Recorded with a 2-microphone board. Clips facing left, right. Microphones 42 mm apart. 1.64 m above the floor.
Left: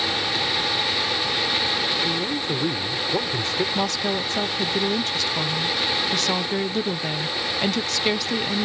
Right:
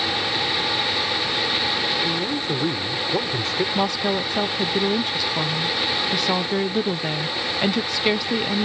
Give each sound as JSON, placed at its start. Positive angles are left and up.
{"t": 2.0, "sound": "a man speaking", "side_deg": 0}
{"t": 3.8, "sound": "a woman speaking", "side_deg": -10}